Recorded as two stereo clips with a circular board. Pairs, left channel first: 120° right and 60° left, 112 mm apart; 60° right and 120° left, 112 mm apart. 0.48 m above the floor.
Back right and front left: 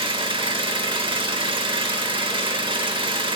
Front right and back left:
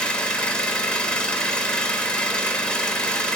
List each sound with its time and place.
0.0 s an engine running: 20° left, 0.7 m